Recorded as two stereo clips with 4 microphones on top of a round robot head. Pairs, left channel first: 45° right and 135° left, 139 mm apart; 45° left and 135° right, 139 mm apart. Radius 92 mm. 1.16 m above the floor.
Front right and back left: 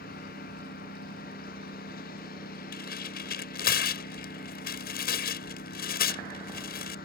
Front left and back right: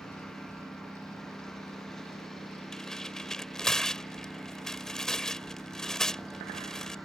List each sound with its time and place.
0.0 s a lawn mower: 40° right; by 7.0 s 45° right
2.7 s tearing paper: 40° right